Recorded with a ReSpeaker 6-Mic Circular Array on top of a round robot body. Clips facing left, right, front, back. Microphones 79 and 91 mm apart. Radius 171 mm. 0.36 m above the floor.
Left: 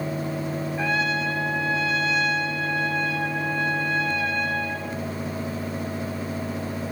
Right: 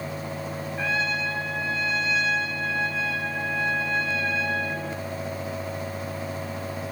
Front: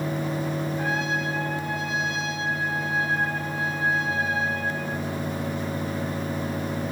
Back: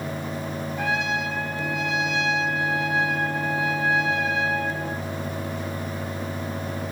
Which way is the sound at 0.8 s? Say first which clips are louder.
Left 2 dB, back 5 dB; 175° left.